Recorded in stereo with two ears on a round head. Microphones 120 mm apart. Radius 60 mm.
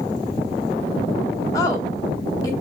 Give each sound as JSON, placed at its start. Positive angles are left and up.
{"t": 1.5, "sound": "a woman speaking", "side_deg": 25, "distance_m": 0.8}